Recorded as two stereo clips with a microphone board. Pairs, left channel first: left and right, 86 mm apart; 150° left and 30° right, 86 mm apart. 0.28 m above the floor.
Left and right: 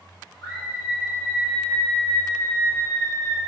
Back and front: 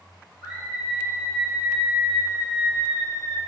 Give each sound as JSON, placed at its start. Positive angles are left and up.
{"t": 0.4, "sound": "a scream", "azimuth_deg": 5, "distance_m": 1.6}